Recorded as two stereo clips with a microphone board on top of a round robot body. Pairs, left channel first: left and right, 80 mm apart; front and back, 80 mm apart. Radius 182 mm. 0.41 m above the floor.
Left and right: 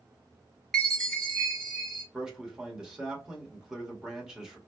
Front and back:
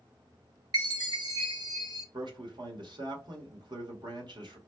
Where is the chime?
175° left, 2 m.